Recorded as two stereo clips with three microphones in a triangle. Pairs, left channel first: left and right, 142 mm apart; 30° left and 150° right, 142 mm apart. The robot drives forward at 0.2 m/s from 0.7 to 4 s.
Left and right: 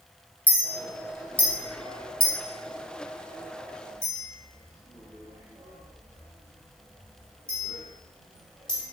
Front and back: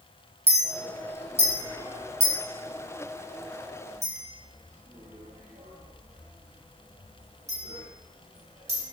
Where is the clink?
170° left, 0.6 m; by 8.9 s 175° left, 1.3 m.